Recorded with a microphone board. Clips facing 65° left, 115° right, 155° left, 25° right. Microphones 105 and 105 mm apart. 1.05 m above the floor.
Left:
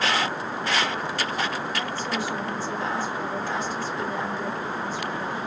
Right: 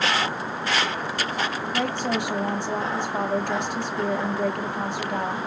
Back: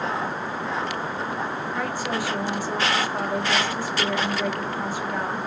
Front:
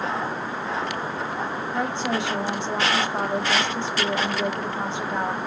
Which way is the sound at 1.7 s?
90° right.